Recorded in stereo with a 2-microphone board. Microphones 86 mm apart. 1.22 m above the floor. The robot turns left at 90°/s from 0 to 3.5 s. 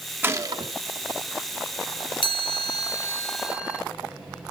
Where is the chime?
105° left, 1.3 m; by 3.8 s 10° right, 1.3 m.